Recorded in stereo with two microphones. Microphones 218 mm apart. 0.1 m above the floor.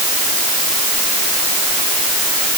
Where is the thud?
I don't hear a thud.